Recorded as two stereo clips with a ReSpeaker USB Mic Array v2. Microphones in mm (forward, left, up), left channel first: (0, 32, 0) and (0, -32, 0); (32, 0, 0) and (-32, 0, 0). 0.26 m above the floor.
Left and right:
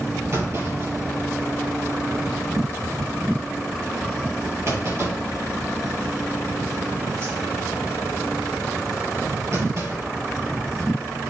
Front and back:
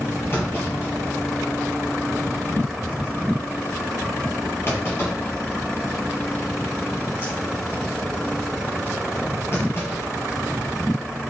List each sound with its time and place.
0.3 s a clunk: 50° right, 4 m